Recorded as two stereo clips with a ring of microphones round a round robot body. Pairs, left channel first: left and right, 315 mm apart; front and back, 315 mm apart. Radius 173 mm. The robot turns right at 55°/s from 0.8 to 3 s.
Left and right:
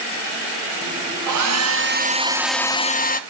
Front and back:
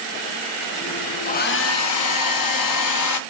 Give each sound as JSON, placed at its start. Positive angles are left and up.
{"t": 1.3, "sound": "a hair dryer", "azimuth_deg": -70, "distance_m": 0.7}